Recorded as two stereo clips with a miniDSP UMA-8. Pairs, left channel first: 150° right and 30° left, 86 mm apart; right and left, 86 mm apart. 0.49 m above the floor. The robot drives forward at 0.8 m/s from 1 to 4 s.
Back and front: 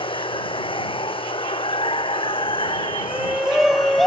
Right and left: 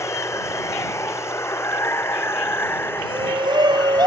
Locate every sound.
0.0 s running water: 145° right; by 4.1 s 155° right
3.0 s a shout: 110° left; by 4.1 s 120° left